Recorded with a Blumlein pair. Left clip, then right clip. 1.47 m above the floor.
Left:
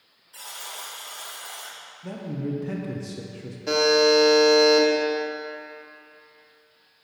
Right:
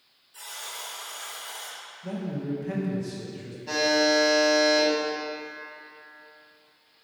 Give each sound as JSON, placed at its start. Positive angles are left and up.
{"t": 0.3, "sound": "a buzzer", "azimuth_deg": 45, "distance_m": 2.5}
{"t": 2.0, "sound": "a man speaking", "azimuth_deg": 15, "distance_m": 1.1}
{"t": 3.7, "sound": "a buzzer", "azimuth_deg": 35, "distance_m": 1.8}